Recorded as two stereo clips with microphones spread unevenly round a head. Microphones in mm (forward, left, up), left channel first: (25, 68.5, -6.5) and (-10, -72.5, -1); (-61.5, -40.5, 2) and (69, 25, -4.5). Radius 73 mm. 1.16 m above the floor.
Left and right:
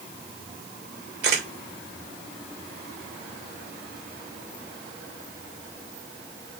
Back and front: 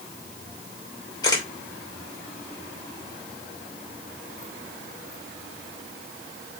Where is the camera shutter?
90° right, 3 m.